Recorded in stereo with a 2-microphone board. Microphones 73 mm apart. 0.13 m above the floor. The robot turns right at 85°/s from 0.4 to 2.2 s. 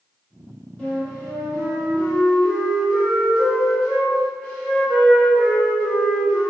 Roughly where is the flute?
Centre.